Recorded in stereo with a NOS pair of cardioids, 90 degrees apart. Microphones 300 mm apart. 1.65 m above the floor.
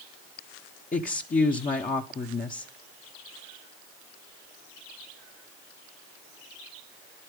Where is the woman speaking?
25° left, 1.2 m.